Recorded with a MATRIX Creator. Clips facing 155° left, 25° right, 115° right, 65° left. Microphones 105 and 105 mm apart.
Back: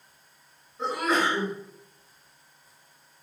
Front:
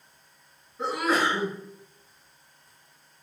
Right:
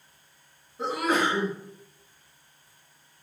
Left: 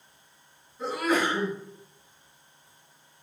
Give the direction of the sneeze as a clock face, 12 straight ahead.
4 o'clock.